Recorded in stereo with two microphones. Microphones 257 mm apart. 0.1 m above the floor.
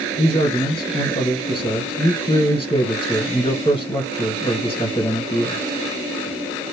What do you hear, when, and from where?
0.2 s a man speaking: 20° left (ahead or behind), 2 m